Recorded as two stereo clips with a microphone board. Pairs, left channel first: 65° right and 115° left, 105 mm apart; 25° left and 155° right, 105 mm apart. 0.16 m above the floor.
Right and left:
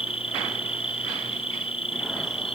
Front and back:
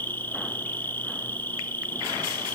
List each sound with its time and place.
0.0 s an insect: 50° right, 1.3 m